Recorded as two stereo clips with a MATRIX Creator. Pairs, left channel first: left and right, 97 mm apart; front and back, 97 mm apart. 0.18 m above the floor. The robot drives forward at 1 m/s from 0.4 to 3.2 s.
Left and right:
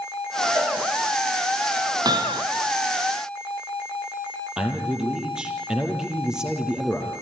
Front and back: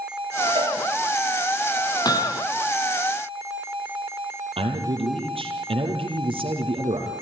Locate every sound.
0.6 s a cowbell: 140° right, 8 m; by 0.8 s 145° right, 8.5 m
2.0 s hammering: 45° right, 2 m; by 2.4 s 55° right, 1.8 m
4.6 s a man speaking: 170° right, 4 m